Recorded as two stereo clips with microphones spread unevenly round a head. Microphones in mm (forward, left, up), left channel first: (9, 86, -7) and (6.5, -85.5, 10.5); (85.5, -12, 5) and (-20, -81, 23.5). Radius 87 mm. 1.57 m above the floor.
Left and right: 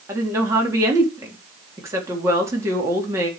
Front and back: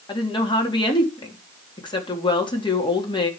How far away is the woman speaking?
About 3.5 m.